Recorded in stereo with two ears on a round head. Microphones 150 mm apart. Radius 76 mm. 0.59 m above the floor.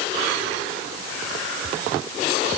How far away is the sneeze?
No sneeze in this recording.